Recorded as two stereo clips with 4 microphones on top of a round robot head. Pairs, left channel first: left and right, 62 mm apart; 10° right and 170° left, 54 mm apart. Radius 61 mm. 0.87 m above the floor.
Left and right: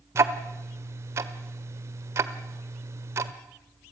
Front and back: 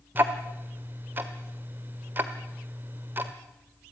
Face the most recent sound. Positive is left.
turn(degrees=-130)